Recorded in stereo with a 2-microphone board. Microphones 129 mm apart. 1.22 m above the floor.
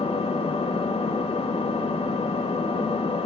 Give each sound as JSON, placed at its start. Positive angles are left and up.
{"t": 0.0, "sound": "an engine running", "side_deg": 55, "distance_m": 1.4}